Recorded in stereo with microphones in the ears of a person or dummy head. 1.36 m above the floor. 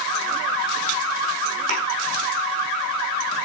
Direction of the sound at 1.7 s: 65° right (ahead or behind).